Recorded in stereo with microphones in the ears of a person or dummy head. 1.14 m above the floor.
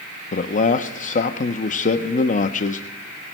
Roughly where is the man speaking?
Left.